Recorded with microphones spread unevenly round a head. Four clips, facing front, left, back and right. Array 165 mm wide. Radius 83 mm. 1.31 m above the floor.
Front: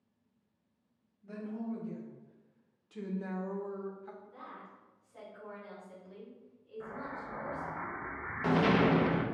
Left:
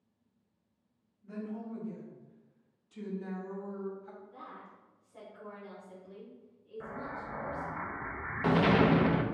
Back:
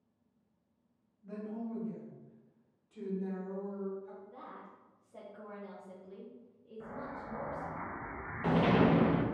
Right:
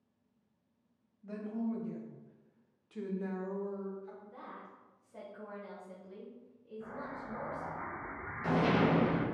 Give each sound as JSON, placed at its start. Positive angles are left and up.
{"t": 1.2, "sound": "a woman speaking", "azimuth_deg": -80, "distance_m": 1.8}
{"t": 4.2, "sound": "a woman speaking", "azimuth_deg": -140, "distance_m": 1.3}
{"t": 6.8, "sound": "an explosion", "azimuth_deg": 80, "distance_m": 0.5}